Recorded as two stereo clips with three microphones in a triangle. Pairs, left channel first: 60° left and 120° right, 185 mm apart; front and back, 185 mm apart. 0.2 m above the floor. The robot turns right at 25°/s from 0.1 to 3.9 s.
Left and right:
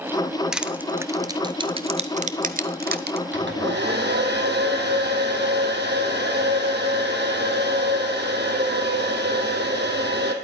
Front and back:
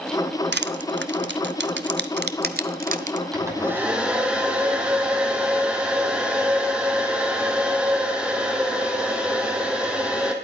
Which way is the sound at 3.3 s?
110° right.